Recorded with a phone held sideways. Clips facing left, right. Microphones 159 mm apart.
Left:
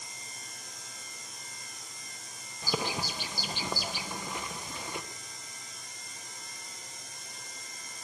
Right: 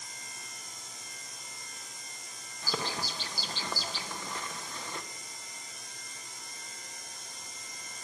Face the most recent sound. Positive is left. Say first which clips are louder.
# left 3 dB
turn(degrees=15)  # may be behind; listen again after turning